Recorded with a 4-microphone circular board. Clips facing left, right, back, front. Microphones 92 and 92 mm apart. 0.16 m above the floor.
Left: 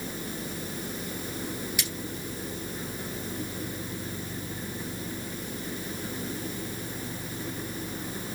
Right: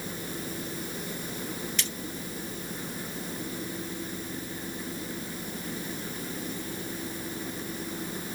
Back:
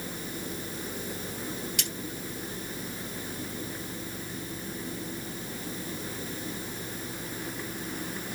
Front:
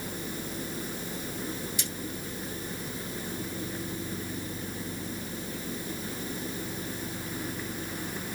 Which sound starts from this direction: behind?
Cutlery clinking, at 1.8 s.